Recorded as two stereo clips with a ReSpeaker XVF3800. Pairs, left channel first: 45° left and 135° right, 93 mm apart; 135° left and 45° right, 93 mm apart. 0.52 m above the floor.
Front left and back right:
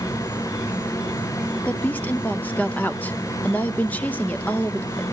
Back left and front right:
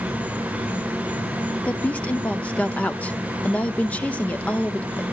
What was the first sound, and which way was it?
An insect, 30° left.